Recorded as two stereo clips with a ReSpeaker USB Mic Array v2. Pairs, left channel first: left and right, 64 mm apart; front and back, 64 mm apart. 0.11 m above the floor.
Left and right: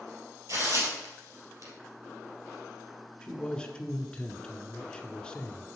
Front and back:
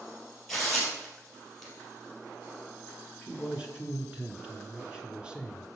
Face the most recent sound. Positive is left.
turn(degrees=145)